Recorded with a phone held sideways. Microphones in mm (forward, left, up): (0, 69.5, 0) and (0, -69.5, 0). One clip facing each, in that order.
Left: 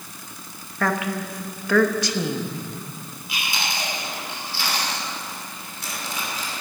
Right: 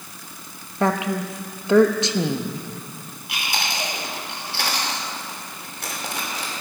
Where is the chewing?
75° right (ahead or behind), 3 m.